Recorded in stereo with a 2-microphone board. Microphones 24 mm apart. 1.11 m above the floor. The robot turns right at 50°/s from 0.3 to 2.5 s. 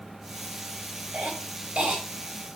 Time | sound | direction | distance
1.1 | a cough | 85° right | 6 m